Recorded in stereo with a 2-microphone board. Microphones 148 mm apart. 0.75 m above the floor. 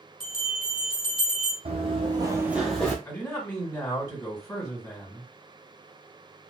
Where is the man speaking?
20° left (ahead or behind), 1.9 m.